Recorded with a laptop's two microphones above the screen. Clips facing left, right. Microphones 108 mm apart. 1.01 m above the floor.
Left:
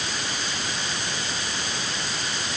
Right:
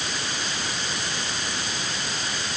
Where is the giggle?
No giggle in this recording.